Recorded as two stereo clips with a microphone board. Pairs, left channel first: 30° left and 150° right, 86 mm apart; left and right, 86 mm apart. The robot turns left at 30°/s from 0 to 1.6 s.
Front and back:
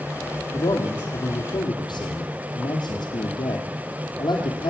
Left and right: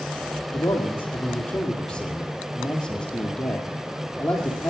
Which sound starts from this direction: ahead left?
A man speaking, at 0.5 s.